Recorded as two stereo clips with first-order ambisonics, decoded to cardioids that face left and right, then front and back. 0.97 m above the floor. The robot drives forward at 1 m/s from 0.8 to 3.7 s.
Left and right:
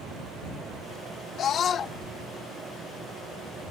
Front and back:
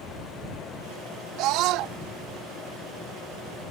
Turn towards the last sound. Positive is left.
turn(degrees=165)